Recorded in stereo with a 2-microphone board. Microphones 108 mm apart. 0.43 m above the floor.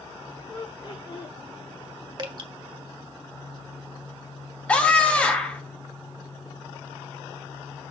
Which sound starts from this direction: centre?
A scream, at 4.7 s.